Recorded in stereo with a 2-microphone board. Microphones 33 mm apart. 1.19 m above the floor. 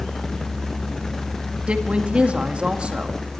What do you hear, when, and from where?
1.7 s a woman speaking: 35° right (ahead or behind), 2 m